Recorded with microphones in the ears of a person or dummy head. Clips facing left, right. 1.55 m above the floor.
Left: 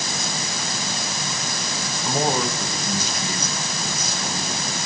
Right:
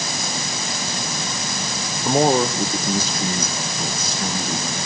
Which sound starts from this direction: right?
A man speaking, at 2.0 s.